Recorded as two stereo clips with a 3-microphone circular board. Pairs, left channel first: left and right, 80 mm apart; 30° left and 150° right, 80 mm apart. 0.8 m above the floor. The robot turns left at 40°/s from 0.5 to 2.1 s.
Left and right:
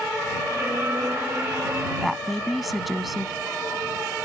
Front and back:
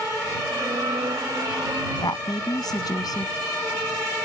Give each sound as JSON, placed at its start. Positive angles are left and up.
{"t": 2.0, "sound": "a woman speaking", "azimuth_deg": 5}